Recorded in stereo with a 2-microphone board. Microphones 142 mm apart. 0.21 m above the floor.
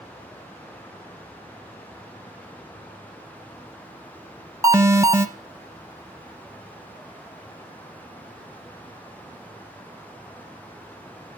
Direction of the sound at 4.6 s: 20° right (ahead or behind).